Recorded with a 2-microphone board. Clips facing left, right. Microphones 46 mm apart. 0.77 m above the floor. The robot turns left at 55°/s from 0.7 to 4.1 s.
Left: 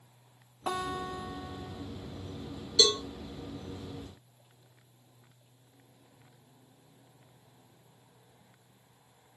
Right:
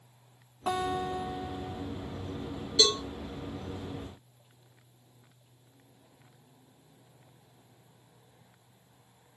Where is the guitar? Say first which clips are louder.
Right 3 dB; 15° right (ahead or behind), 0.8 m; by 1.9 s 20° right (ahead or behind), 0.8 m.